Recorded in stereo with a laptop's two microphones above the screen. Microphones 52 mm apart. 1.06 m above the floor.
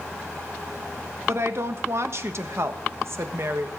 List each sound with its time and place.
1.3 s a woman speaking: 55° right (ahead or behind), 1.1 m